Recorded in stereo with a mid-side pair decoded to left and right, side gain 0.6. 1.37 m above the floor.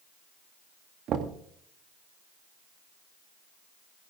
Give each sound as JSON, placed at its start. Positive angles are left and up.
{"t": 1.1, "sound": "knocking", "azimuth_deg": -55, "distance_m": 1.9}